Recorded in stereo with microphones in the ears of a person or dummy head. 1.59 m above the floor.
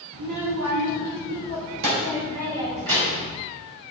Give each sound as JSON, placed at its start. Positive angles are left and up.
{"t": 0.1, "sound": "a child speaking", "side_deg": -60, "distance_m": 1.6}